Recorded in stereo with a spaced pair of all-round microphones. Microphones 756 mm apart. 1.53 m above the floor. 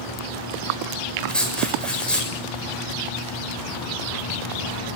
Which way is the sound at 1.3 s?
Centre (ahead or behind).